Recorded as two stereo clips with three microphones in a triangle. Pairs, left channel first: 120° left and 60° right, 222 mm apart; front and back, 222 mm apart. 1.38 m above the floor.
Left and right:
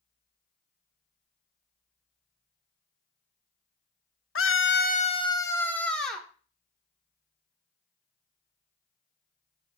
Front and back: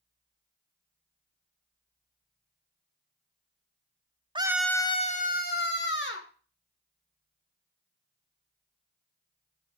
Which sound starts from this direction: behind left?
A scream, at 4.3 s.